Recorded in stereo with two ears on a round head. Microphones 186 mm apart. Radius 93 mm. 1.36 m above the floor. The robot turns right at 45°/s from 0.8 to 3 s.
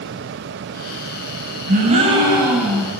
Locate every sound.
1.7 s a gasp: 45° right, 6 m; by 2.9 s 10° left, 6 m